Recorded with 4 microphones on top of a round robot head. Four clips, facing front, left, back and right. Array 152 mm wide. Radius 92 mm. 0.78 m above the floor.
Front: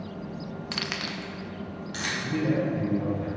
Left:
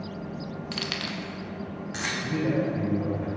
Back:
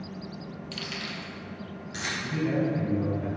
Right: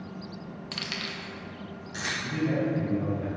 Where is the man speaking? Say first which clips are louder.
Left 1 dB, front 1 dB; 65° left, 2.5 m.